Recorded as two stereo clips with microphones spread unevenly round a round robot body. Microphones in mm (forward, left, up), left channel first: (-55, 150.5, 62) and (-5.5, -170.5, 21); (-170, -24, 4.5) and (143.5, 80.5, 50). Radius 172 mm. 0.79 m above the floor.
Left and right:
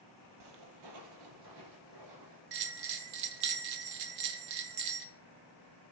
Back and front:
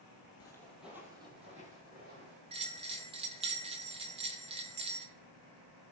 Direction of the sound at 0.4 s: 80° right.